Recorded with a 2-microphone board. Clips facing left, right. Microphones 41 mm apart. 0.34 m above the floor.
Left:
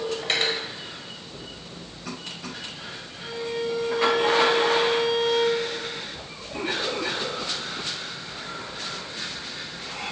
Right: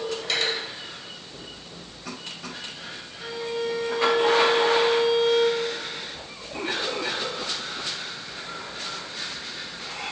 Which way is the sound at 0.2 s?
40° left (ahead or behind).